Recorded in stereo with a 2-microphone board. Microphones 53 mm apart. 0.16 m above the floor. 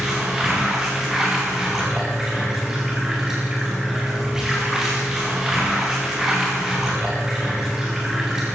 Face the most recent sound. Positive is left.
turn(degrees=-10)  # may be behind; listen again after turning